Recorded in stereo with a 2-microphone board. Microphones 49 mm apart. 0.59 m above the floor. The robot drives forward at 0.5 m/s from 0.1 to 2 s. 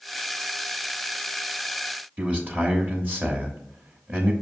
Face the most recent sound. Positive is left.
turn(degrees=-35)  # may be behind; listen again after turning